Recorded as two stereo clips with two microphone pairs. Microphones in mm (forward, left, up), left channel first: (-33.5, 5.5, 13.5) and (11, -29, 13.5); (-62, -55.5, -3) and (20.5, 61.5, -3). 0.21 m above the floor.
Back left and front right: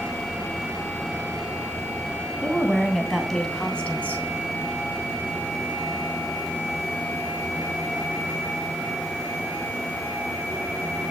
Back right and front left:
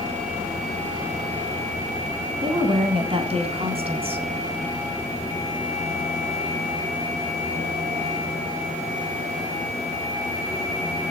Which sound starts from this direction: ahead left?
A woman speaking, at 2.4 s.